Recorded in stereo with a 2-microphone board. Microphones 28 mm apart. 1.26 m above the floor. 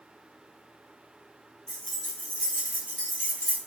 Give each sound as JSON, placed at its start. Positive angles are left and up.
{"t": 1.7, "sound": "keys jangling", "side_deg": 35, "distance_m": 1.9}